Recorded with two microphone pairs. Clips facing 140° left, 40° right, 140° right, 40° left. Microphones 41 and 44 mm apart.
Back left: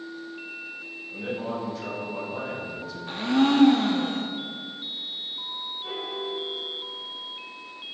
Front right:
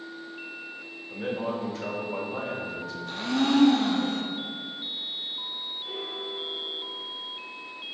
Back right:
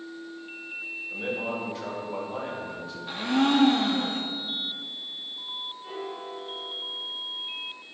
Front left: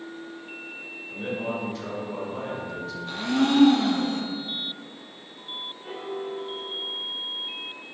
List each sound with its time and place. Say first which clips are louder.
1.1 s a man speaking: front right 1 dB, front left 1 dB; 55° right, 2.5 m; by 3.0 s 75° right, 1.8 m
3.1 s a blender: back left 3 dB, even; 160° left, 0.9 m
5.8 s a piano: back left 4 dB, front left 6 dB; 100° left, 1.1 m